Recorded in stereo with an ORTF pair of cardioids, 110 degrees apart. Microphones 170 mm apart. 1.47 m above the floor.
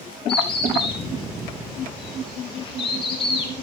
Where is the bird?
30° left, 2 m.